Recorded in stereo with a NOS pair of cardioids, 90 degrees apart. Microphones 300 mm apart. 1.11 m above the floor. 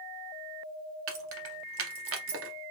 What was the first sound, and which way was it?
Keys jangling, 50° right.